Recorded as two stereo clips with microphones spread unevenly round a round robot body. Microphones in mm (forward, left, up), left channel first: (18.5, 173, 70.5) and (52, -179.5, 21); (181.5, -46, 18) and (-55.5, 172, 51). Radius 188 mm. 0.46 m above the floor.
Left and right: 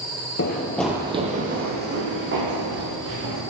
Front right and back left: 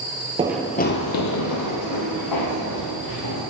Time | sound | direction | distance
0.4 | running footsteps | 80° left | 0.5 m